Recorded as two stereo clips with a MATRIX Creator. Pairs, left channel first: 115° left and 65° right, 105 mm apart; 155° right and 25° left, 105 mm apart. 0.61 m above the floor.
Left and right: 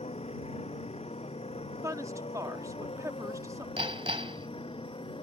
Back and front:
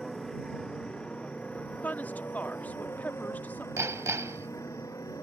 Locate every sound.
0.0 s a motorcycle: 115° left; by 5.2 s 145° left
1.8 s a woman speaking: 95° right
3.8 s hammering: 40° right